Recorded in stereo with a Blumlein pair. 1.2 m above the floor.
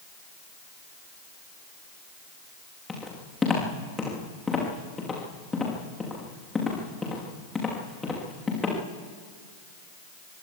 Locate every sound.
2.9 s footsteps: 10° left, 5.5 m